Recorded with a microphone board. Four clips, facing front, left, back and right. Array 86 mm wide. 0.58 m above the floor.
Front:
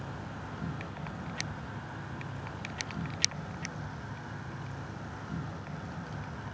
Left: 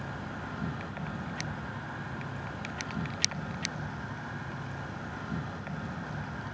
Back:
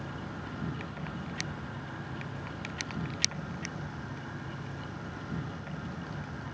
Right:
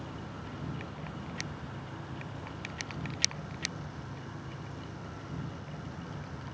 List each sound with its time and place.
0.0 s an insect: 90° left, 1.3 m